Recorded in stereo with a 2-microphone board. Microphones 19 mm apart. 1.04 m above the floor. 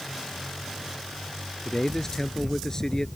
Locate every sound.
1.6 s a man speaking: 25° left (ahead or behind)